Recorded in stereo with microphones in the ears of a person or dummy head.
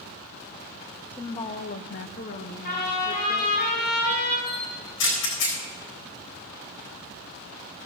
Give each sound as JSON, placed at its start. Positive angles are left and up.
{"t": 1.1, "sound": "a woman speaking", "side_deg": 15, "distance_m": 0.8}
{"t": 2.6, "sound": "a trumpet", "side_deg": 50, "distance_m": 5.0}
{"t": 4.5, "sound": "a camera shutter", "side_deg": 75, "distance_m": 3.5}